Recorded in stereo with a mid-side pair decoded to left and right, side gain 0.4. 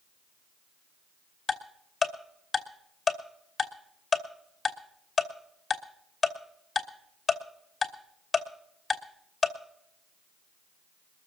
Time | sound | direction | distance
1.5 | ticking | 35° left | 2.5 m